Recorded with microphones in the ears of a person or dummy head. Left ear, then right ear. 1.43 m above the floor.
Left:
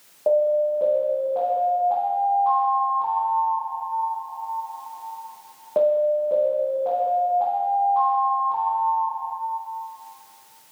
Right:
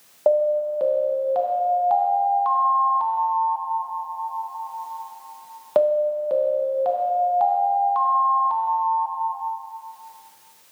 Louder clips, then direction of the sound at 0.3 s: Even; 60° right (ahead or behind).